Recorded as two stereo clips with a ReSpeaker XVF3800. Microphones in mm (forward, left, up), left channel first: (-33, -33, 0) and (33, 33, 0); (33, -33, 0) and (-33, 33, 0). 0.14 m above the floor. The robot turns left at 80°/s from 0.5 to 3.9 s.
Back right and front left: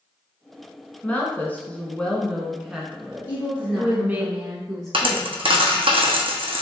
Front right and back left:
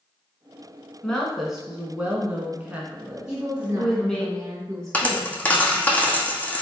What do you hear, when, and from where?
1.0 s a woman speaking: 110° right, 1.0 m; by 4.3 s 20° left, 1.0 m
3.3 s a woman speaking: 170° right, 1.8 m; by 5.9 s 140° left, 1.8 m
4.9 s a dropped coin: 30° left, 0.8 m